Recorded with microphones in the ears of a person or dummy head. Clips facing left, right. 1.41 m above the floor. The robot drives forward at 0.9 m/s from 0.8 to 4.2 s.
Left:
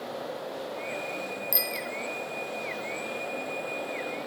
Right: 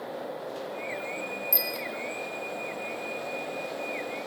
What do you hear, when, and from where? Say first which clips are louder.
1.5 s a bicycle bell: even; 10° left (ahead or behind), 3.5 m; by 1.9 s 15° left (ahead or behind), 3.5 m